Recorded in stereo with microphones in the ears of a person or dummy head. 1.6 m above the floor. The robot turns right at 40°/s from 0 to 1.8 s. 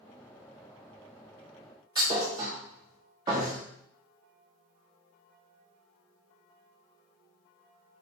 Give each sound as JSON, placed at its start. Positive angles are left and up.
{"t": 1.9, "sound": "a thud", "side_deg": -15, "distance_m": 1.1}